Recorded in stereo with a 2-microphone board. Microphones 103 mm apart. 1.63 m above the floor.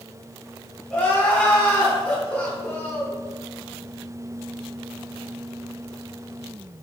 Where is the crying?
10° left (ahead or behind), 0.8 m.